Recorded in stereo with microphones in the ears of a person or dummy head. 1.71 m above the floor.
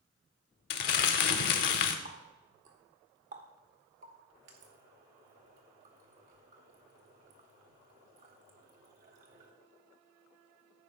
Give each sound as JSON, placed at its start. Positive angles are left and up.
{"t": 0.7, "sound": "crumpling", "side_deg": 55, "distance_m": 0.9}
{"t": 2.0, "sound": "a running tap", "side_deg": -40, "distance_m": 1.1}